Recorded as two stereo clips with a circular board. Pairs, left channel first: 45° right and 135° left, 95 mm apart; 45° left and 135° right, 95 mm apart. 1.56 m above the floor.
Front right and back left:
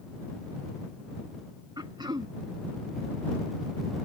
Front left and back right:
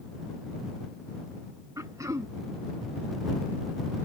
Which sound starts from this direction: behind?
Throat clearing, at 1.8 s.